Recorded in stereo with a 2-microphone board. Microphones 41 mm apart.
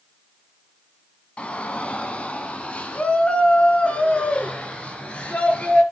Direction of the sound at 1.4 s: 30° left (ahead or behind).